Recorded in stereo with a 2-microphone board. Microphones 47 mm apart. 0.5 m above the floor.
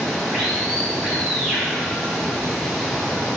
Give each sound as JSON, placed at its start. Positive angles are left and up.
{"t": 0.0, "sound": "running water", "side_deg": -5, "distance_m": 5.5}